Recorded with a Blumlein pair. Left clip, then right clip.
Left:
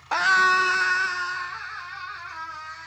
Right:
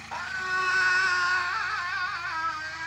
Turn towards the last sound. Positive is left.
turn(degrees=-40)